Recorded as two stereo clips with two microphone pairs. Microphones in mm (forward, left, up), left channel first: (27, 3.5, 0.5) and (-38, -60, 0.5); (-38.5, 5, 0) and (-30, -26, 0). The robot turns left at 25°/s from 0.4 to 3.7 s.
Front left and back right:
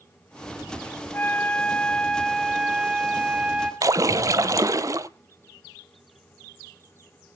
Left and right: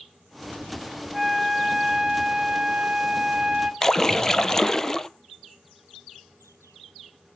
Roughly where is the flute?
Ahead.